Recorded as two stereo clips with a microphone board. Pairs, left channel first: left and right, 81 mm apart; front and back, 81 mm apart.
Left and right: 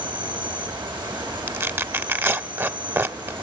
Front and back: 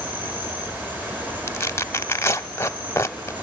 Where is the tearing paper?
40° right, 0.7 m.